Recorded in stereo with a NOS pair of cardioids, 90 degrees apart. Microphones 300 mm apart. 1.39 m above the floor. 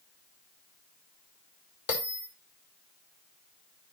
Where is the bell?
55° left, 4 m.